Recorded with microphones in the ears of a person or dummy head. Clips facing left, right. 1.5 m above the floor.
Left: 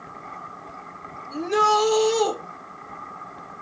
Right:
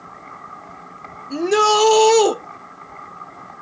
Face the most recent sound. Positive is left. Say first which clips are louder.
# right 5 dB
turn(degrees=-80)